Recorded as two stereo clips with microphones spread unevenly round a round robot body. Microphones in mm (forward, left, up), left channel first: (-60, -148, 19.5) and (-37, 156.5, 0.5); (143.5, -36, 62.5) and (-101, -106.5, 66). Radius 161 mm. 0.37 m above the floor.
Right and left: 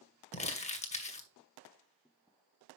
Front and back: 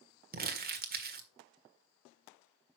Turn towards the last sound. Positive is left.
turn(degrees=-155)